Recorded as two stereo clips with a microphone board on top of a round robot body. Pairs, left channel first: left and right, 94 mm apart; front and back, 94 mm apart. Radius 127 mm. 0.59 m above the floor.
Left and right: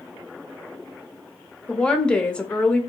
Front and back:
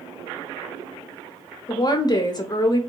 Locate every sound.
1.7 s a woman speaking: 15° left, 0.7 m